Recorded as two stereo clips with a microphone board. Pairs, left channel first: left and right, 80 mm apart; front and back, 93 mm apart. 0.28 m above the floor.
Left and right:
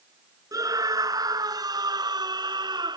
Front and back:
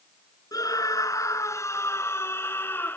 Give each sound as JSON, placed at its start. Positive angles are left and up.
{"t": 0.5, "sound": "a scream", "azimuth_deg": -50}